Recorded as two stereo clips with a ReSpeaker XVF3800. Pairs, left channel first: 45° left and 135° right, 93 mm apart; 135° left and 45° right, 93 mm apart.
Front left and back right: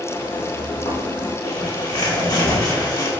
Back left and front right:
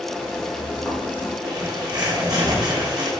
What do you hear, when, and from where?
0.1 s footsteps: 35° left, 3 m; by 1.3 s 75° left, 2.5 m
1.4 s a bird: straight ahead, 2 m